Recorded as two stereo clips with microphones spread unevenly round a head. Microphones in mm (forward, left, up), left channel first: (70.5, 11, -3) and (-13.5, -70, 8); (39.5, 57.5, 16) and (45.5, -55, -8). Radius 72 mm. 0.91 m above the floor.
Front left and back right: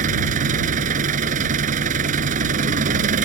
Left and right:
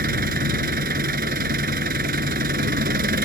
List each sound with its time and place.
0.0 s an engine running: 120° right